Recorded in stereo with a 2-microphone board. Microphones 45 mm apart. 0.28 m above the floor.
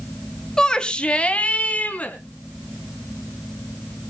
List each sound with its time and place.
0.6 s a shout: 15° left (ahead or behind), 1.5 m; by 2.2 s 35° left (ahead or behind), 3.5 m